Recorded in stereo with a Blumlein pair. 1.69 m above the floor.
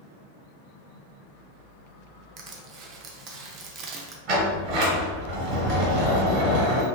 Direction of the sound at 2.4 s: 30° right.